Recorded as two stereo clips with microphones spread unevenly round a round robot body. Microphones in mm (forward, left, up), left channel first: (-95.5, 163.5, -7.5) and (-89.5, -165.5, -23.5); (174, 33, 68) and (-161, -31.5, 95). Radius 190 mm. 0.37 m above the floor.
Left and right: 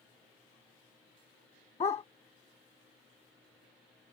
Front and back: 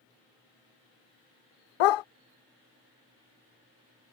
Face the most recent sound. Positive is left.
turn(degrees=15)